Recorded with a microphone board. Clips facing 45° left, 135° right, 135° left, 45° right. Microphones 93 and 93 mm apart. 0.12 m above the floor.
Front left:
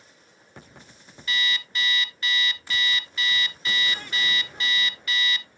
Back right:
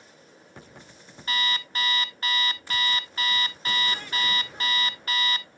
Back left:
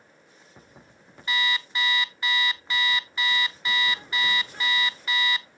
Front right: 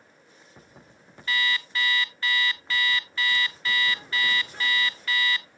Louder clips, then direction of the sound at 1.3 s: Even, even; 155° right.